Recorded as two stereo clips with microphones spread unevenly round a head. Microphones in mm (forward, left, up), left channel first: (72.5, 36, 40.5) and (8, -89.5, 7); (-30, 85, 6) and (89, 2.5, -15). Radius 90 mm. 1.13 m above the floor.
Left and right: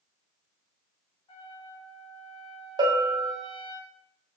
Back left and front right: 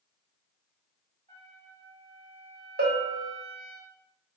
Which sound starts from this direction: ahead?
A trumpet, at 1.3 s.